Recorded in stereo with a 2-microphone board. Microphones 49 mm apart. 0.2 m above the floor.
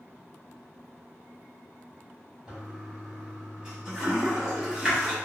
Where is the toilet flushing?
10° right (ahead or behind), 1.4 m.